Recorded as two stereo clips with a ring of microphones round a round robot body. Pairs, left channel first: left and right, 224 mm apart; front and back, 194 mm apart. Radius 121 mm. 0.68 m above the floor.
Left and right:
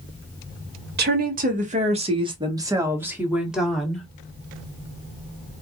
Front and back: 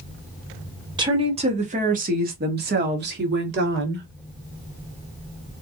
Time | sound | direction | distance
1.0 | a woman speaking | 120° right | 1.4 m